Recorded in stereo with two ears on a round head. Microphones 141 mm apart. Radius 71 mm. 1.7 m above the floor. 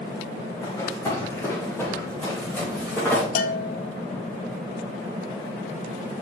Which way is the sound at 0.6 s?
25° left (ahead or behind).